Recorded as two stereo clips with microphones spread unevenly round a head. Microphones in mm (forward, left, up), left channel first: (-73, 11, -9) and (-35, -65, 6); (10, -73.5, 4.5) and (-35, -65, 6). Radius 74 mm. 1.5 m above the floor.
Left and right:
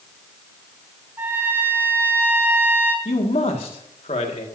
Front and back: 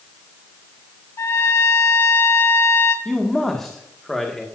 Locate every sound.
1.2 s a trumpet: 5° right, 2.5 m
3.0 s a man speaking: 75° left, 1.8 m